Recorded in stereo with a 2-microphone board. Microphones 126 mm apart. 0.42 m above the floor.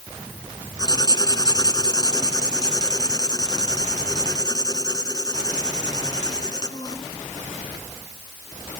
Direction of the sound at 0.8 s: 30° left (ahead or behind).